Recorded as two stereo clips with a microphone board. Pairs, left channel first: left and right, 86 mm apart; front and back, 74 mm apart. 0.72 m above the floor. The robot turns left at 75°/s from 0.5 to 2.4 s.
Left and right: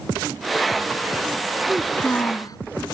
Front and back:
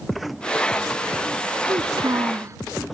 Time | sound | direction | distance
1.7 | a child speaking | 170° right | ?